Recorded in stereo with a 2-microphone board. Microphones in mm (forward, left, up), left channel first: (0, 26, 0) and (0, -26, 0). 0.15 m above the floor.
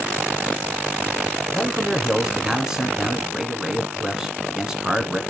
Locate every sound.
1.5 s a man speaking: 15° right (ahead or behind), 1.1 m